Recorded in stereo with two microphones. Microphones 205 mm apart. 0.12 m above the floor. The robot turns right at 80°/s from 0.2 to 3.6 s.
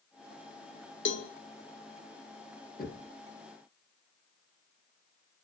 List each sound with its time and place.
1.1 s a cowbell: 70° left (ahead or behind), 0.9 m; by 1.3 s 85° left, 0.9 m
2.8 s knocking: 45° left (ahead or behind), 2.5 m; by 3.1 s 55° left (ahead or behind), 2.5 m